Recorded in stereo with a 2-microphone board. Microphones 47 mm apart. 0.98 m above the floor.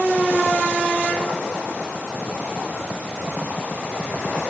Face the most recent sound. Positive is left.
No sound to turn to.